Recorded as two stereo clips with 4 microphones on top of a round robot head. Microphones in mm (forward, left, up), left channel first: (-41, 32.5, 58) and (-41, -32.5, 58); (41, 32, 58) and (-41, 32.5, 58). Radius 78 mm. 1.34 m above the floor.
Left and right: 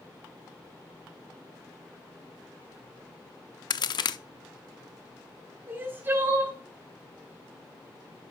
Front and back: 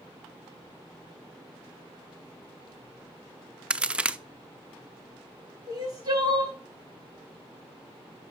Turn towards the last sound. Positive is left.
turn(degrees=-135)